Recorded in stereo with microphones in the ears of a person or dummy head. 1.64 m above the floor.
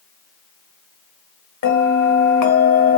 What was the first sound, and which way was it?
A bell, 60° left (ahead or behind).